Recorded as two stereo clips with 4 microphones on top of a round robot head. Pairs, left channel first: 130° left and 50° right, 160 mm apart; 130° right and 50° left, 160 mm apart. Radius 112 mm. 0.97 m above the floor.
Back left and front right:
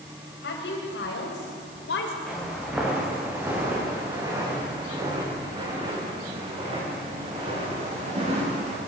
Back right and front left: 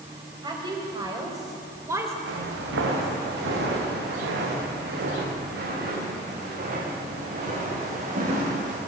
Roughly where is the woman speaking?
Behind left.